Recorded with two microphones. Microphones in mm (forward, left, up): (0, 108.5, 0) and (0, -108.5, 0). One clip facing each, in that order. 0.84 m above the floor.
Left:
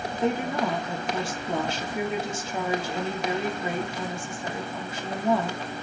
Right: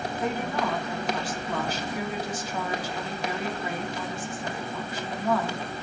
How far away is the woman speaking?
About 1.9 m.